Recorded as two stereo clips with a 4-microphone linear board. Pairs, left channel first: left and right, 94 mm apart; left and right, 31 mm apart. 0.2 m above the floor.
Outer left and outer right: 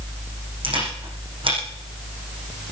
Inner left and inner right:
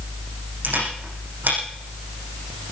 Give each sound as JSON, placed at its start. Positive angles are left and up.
{"t": 0.6, "sound": "a camera shutter", "side_deg": -65, "distance_m": 8.5}